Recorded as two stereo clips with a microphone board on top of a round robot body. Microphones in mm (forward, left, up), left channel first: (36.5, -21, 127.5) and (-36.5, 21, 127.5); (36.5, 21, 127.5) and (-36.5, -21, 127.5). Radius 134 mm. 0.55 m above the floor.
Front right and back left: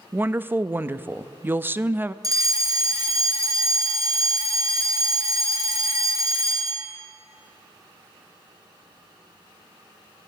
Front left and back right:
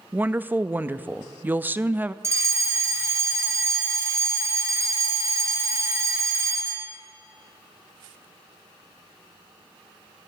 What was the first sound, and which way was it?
A woman speaking, 175° left.